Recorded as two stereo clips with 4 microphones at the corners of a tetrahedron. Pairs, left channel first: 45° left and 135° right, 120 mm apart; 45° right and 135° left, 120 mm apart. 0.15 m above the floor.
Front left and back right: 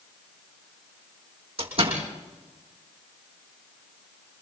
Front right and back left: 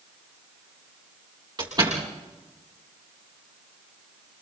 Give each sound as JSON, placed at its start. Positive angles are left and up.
{"t": 1.6, "sound": "a door slam", "azimuth_deg": -175, "distance_m": 6.0}